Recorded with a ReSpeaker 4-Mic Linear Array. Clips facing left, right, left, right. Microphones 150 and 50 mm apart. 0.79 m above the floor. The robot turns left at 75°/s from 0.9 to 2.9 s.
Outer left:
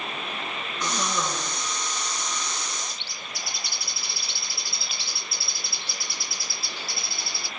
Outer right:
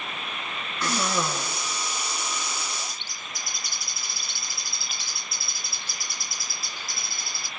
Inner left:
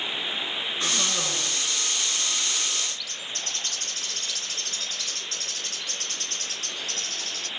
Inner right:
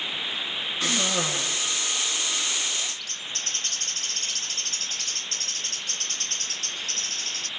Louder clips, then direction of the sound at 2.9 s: Outer left 1 dB, even; 45° right (ahead or behind).